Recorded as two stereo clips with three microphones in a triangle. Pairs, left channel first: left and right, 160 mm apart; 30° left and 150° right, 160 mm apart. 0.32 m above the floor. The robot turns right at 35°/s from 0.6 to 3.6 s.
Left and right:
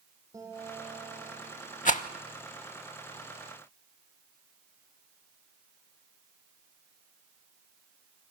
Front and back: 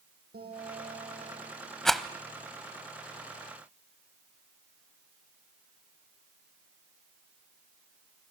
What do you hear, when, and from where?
0.3 s a guitar: 160° right, 7.5 m; by 2.5 s 95° right, 7.5 m
1.9 s a rattle: 115° left, 0.7 m; by 2.0 s 125° left, 0.7 m